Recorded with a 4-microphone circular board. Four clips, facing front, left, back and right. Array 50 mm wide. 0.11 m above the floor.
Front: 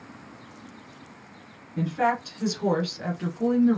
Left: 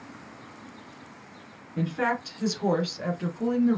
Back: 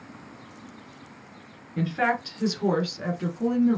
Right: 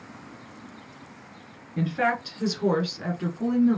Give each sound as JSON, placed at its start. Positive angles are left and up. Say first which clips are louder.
{"t": 1.8, "sound": "a woman speaking", "louder": "right 2 dB, even", "azimuth_deg": -150, "distance_m": 1.3}